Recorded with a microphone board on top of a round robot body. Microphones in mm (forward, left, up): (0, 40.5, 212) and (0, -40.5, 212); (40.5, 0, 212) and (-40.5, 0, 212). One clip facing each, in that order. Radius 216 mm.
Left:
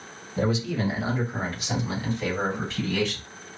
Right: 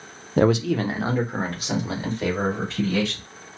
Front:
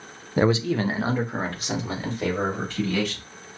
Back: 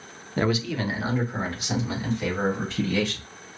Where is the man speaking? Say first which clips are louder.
Right 7 dB, front 4 dB; 75° right, 0.5 m; by 3.2 s 40° right, 4 m.